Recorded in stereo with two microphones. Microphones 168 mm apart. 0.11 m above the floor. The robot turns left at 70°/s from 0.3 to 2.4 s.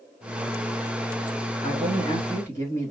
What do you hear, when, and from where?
1.6 s a man speaking: 75° left, 2.5 m; by 2.9 s 20° left, 2.5 m